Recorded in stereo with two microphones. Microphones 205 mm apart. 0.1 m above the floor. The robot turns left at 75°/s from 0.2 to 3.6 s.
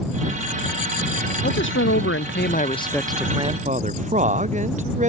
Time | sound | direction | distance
1.4 | a man speaking | 125° left | ?